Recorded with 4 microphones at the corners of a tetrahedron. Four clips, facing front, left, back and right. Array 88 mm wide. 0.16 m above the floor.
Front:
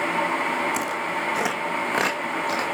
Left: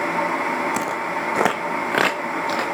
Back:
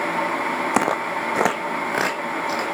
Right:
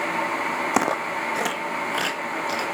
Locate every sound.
0.7 s footsteps: 145° right, 0.7 m; by 2.6 s 95° left, 2 m